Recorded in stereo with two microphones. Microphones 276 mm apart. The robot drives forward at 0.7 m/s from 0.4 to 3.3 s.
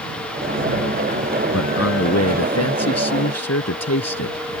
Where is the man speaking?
60° left (ahead or behind); by 4.5 s 65° left (ahead or behind).